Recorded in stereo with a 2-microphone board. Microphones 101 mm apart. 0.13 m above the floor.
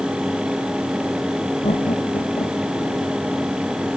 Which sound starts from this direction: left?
Laughter, at 1.6 s.